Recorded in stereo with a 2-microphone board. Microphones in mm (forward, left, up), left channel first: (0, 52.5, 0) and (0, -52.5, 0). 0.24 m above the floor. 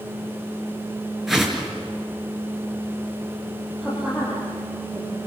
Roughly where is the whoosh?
Centre.